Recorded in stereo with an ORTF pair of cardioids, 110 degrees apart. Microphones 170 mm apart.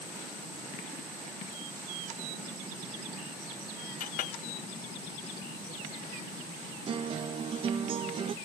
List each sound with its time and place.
4.0 s a clink: 55° left
6.9 s a guitar: 30° right